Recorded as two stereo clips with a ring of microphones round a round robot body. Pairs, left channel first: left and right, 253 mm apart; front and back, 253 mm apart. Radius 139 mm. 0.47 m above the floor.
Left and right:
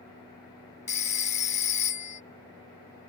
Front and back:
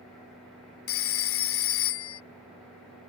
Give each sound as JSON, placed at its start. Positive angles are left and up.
{"t": 0.9, "sound": "a phone ringing", "azimuth_deg": 30}